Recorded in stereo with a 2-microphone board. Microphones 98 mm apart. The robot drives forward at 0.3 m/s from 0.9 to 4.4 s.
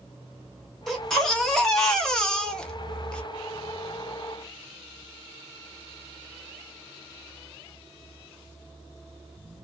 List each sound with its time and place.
0.9 s a baby crying: 5° left (ahead or behind), 1.1 m; by 3.2 s 10° left (ahead or behind), 0.5 m